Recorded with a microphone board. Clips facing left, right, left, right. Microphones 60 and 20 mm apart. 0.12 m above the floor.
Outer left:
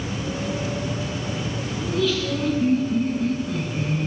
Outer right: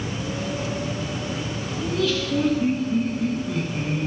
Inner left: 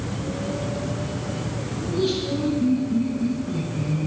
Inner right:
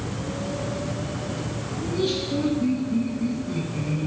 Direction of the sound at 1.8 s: 5° right (ahead or behind).